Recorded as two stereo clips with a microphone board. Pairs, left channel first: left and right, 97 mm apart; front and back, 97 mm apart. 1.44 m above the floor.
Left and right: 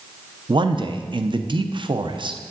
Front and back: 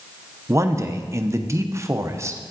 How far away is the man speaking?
About 0.6 m.